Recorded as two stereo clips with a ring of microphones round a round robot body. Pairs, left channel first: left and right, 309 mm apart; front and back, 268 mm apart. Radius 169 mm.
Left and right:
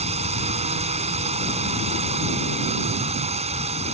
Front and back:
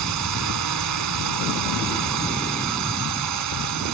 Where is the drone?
160° right.